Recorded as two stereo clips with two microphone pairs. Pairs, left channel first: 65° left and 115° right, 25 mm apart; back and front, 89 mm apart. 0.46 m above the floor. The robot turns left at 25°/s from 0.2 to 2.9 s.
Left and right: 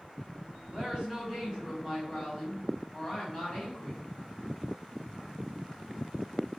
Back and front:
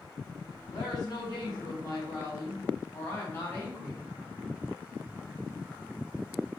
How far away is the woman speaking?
About 2 m.